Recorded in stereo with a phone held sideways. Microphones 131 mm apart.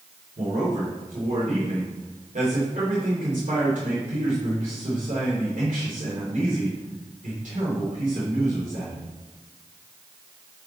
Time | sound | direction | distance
0.4 | a man speaking | 85° right | 2.5 m